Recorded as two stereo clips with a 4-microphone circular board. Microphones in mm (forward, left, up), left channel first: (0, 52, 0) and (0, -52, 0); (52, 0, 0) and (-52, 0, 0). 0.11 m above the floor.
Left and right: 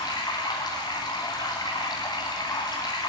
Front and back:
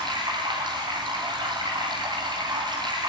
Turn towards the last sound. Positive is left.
turn(degrees=140)